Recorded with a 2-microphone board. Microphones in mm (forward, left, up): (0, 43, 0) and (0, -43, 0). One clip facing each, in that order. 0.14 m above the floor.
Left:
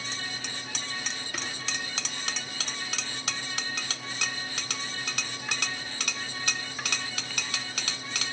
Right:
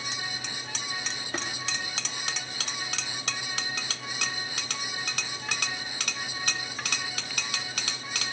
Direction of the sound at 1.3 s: 35° right (ahead or behind).